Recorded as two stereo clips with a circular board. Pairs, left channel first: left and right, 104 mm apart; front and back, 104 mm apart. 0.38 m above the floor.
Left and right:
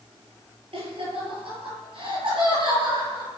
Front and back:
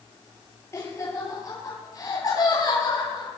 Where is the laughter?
60° right, 7.5 m; by 3.3 s 45° right, 7 m.